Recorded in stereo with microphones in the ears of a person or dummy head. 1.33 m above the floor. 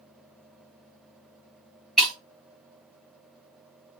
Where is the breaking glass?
Centre (ahead or behind), 3.5 m.